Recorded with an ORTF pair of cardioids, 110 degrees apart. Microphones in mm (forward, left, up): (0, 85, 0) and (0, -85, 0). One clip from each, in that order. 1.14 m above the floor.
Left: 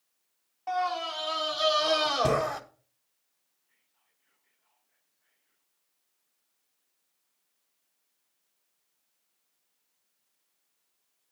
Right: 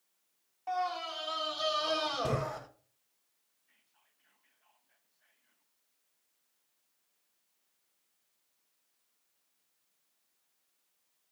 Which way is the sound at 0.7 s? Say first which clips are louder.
Left 5 dB; 25° left.